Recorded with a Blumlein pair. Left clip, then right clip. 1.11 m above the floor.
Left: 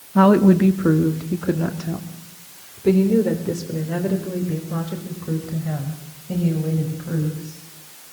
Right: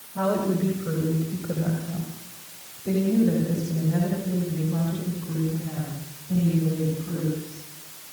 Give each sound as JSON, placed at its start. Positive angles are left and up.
{"t": 0.1, "sound": "a woman speaking", "azimuth_deg": 55, "distance_m": 1.5}